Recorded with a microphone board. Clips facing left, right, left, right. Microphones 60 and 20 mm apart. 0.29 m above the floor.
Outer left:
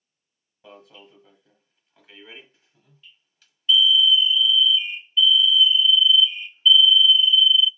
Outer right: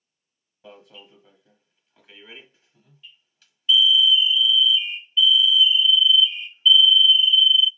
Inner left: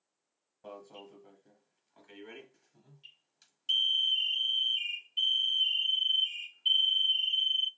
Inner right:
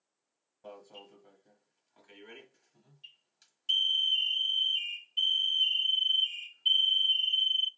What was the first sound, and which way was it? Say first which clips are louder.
An alarm: outer right 1 dB, inner left 1 dB; 5° right (ahead or behind).